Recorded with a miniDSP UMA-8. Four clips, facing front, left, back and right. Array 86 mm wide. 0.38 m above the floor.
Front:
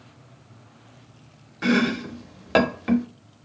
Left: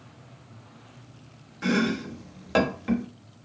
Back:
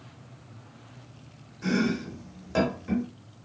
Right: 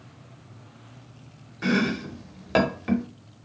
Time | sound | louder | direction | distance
1.6 | chopping | right 1 dB, front 5 dB | 15° right | 0.8 m